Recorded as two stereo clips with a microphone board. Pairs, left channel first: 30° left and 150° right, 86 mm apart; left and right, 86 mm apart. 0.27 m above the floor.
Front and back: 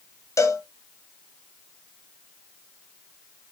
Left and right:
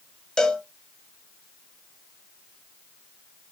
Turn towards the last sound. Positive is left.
turn(degrees=10)